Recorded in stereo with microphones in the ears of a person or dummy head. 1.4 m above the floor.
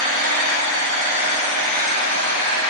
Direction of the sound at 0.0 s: 50° right (ahead or behind).